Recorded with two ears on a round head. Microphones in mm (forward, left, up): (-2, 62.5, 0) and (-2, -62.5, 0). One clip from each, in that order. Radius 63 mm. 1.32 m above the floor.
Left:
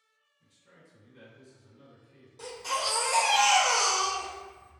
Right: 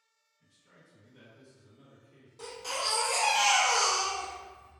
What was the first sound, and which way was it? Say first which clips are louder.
A man speaking: left 2 dB; 10° left (ahead or behind).